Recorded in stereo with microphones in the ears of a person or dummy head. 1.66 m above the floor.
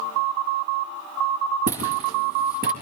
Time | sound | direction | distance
1.7 | footsteps | 55° right (ahead or behind) | 4.5 m